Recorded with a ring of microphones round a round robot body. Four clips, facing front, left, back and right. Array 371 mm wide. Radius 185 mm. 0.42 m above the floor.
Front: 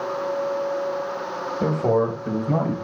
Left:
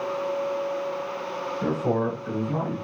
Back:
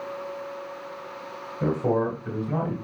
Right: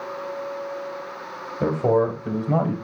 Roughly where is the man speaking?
Ahead right.